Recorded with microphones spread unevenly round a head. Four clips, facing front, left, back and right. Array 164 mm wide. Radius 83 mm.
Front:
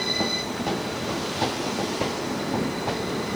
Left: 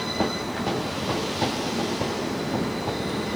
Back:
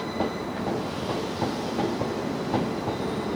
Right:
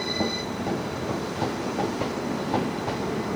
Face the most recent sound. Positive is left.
No sound to turn to.